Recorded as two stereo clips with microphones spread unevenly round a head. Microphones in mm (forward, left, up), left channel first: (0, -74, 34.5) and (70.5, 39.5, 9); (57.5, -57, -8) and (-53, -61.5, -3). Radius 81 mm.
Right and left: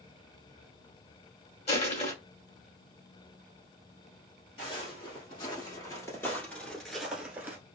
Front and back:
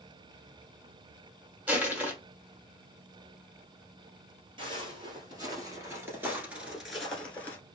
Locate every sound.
1.7 s crushing: 110° right, 1.2 m
4.6 s footsteps: 155° right, 1.9 m; by 7.6 s 10° right, 1.2 m